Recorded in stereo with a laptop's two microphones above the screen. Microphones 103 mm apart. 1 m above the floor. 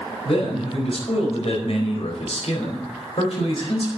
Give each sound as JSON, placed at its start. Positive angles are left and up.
{"t": 0.2, "sound": "a man speaking", "side_deg": 65, "distance_m": 4.5}